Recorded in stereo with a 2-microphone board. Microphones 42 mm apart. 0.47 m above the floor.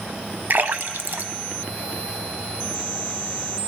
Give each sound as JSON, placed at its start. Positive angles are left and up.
{"t": 0.5, "sound": "a splash", "side_deg": -55, "distance_m": 0.5}